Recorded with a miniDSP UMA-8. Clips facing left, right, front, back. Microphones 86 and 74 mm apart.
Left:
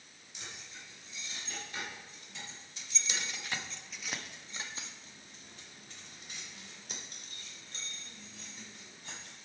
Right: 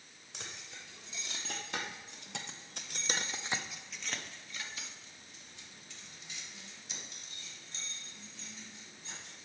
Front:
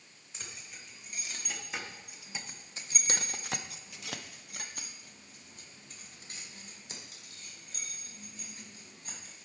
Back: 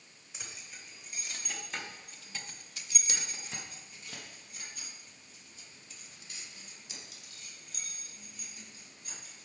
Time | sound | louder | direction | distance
0.3 | keys jangling | right 1 dB, even | 100° right | 1.7 m